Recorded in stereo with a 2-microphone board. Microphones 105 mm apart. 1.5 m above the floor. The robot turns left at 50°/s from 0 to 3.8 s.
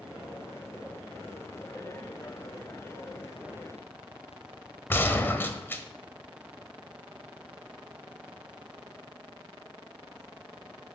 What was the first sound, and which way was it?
A gunshot, 20° left (ahead or behind).